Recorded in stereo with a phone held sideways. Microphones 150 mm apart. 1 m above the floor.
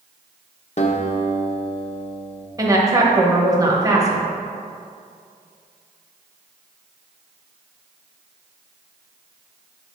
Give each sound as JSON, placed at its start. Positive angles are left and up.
{"t": 0.8, "sound": "a guitar", "side_deg": 45, "distance_m": 0.7}
{"t": 2.6, "sound": "a woman speaking", "side_deg": -25, "distance_m": 1.1}